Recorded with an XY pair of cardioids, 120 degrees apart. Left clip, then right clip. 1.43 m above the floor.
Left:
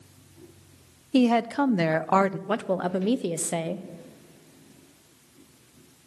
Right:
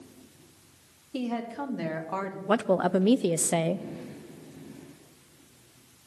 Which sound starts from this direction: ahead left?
A woman speaking, at 1.1 s.